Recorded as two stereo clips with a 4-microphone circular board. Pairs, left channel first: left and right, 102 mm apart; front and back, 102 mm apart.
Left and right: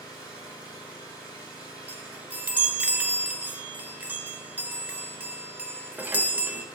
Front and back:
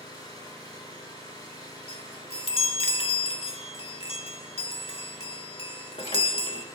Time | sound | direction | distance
0.0 | an engine running | 45° left | 5 m
1.9 | a chime | 20° right | 1.0 m